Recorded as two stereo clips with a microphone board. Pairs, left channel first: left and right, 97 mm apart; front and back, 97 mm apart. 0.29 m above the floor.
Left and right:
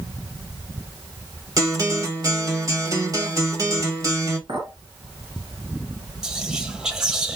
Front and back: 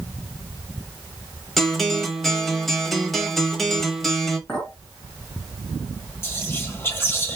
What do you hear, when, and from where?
1.6 s a guitar: 85° right, 1.2 m
4.5 s a clink: 60° right, 2.5 m
6.2 s whispering: 15° right, 1.0 m